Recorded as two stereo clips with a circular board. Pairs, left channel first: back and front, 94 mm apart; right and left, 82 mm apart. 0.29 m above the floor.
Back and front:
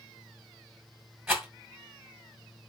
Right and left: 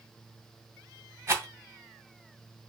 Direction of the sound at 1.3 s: 70° left.